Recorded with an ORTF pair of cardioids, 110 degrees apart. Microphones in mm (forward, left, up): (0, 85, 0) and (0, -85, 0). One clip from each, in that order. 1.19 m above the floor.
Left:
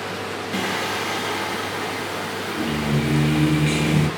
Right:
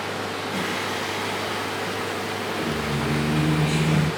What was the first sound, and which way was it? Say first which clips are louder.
Singing: left 4 dB; 40° left.